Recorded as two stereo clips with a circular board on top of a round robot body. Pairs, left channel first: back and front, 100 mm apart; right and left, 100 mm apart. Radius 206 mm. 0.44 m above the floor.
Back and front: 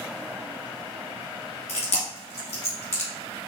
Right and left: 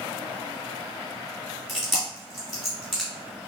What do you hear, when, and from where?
1.7 s chewing: straight behind, 1.8 m